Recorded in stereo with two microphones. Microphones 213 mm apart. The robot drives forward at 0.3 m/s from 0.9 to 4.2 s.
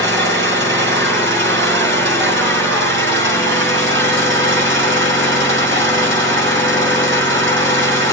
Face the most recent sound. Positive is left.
turn(degrees=-75)  # may be behind; listen again after turning